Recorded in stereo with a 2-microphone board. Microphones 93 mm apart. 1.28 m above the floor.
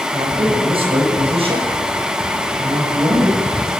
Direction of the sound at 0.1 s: 80° right.